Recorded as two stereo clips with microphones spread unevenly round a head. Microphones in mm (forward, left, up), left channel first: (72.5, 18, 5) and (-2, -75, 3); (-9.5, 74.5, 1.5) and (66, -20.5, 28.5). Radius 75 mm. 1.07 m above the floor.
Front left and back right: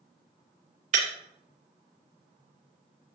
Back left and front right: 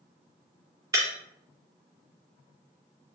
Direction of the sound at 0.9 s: 115° right.